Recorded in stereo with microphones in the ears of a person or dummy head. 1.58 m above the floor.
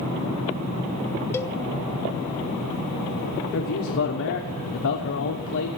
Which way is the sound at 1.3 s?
10° left (ahead or behind).